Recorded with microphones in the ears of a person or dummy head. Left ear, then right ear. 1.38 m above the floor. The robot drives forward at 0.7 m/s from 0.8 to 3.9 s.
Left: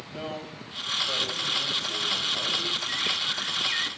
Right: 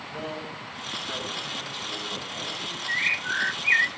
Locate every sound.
0.1 s a man speaking: 10° left (ahead or behind), 8.5 m
2.9 s a bird: 50° right (ahead or behind), 0.7 m; by 3.9 s 45° right (ahead or behind), 0.7 m